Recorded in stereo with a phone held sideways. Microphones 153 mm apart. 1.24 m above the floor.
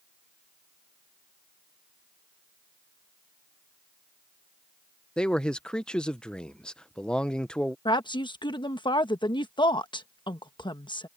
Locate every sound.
5.2 s a man speaking: 5° left (ahead or behind)
7.8 s a woman speaking: 30° left (ahead or behind)